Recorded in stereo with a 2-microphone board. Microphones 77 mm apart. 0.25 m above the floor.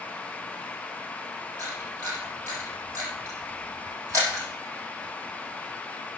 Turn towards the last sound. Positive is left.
turn(degrees=-45)  # may be behind; listen again after turning